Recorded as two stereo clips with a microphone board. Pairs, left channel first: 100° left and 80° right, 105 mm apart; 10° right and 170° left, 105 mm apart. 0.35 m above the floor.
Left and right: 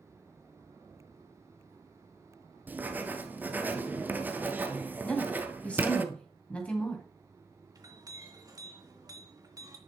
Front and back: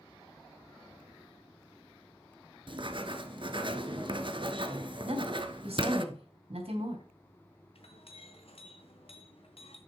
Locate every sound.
2.7 s writing: 150° right, 1.0 m
5.0 s a woman speaking: straight behind, 3.5 m
7.8 s a clink: 30° right, 2.5 m